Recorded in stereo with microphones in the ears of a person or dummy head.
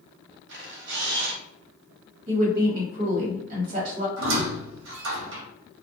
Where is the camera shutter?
65° right (ahead or behind), 1.2 m.